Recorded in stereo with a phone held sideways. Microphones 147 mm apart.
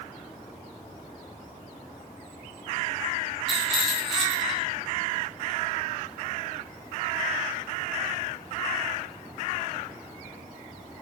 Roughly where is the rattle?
Centre.